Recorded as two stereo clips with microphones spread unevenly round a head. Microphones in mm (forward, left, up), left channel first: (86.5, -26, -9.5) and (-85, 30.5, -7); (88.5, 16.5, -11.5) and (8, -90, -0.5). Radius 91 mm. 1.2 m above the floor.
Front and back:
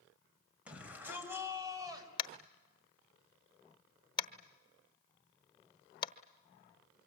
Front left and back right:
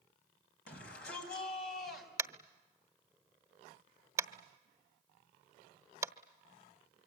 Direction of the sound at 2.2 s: 75° right.